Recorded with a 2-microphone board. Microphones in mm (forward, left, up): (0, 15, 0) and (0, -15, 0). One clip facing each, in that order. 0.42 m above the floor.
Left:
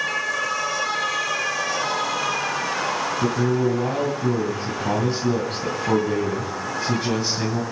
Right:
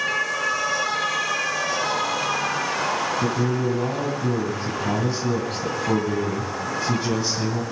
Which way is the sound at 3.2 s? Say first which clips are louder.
Left 2 dB; 15° left (ahead or behind).